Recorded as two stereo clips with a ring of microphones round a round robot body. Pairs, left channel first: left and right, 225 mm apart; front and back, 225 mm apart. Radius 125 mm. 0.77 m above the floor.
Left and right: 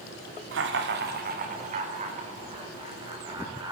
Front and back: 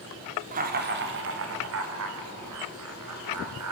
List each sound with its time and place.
0.5 s laughter: 125° right, 2.5 m; by 3.7 s 165° right, 6 m